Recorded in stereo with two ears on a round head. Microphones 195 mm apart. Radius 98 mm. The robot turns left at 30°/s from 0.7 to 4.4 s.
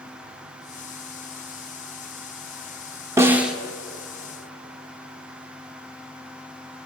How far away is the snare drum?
About 0.8 m.